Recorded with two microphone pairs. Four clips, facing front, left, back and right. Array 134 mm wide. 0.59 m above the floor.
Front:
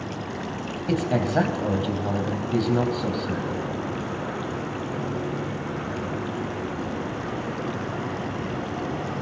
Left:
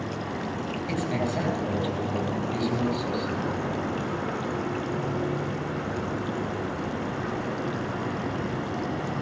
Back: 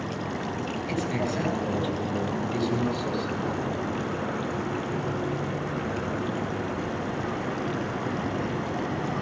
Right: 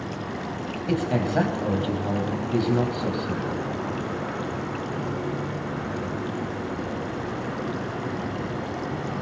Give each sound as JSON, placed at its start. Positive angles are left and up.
{"t": 0.9, "sound": "a man speaking", "azimuth_deg": -30, "distance_m": 4.0}